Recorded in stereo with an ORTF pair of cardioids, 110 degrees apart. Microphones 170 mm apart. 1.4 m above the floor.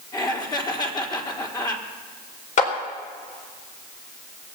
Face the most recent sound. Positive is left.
turn(degrees=50)